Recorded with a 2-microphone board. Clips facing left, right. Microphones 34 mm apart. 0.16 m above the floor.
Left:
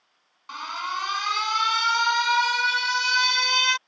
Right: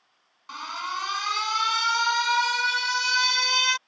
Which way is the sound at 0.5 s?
10° left (ahead or behind).